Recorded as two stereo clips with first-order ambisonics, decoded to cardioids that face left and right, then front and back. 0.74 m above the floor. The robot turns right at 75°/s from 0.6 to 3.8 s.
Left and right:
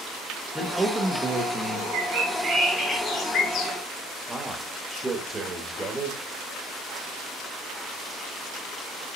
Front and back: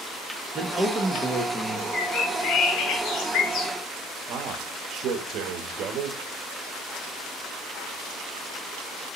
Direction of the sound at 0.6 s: 170° right.